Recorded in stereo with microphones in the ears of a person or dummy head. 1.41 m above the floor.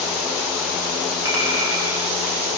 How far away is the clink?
About 5 m.